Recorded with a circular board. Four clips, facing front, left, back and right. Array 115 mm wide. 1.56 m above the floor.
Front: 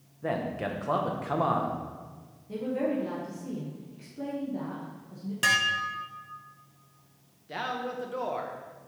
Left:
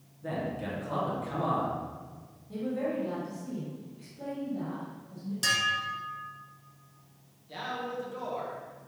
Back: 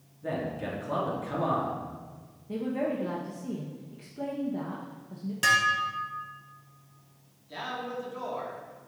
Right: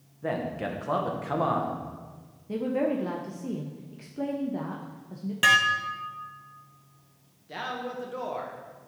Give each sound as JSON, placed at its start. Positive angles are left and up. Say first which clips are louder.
{"t": 0.2, "sound": "a man speaking", "louder": "right 4 dB, front 2 dB", "azimuth_deg": -45, "distance_m": 1.3}
{"t": 2.5, "sound": "a woman speaking", "louder": "right 5 dB, front 1 dB", "azimuth_deg": -100, "distance_m": 0.8}
{"t": 5.4, "sound": "dishes clattering", "louder": "right 8 dB, back 3 dB", "azimuth_deg": -85, "distance_m": 0.6}
{"t": 7.5, "sound": "a man speaking", "louder": "right 2 dB, front 2 dB", "azimuth_deg": -25, "distance_m": 1.4}